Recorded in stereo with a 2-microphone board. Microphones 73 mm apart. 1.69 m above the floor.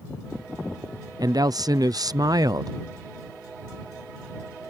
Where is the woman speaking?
60° right (ahead or behind).